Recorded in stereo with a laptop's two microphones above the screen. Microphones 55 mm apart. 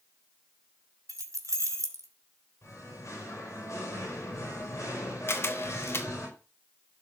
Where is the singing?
60° left (ahead or behind), 4.5 m.